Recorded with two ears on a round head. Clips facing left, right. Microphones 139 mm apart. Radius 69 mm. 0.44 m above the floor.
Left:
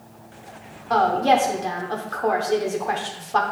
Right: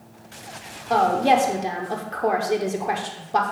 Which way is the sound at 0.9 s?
20° right (ahead or behind).